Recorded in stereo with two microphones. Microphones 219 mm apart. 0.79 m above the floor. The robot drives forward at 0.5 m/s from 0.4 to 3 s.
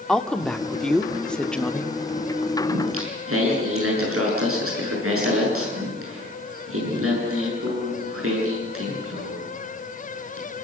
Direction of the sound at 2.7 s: 80° right.